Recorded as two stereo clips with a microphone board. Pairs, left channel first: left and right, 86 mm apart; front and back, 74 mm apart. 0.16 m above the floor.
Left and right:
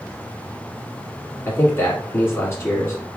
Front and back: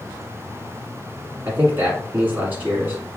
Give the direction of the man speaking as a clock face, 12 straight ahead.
8 o'clock.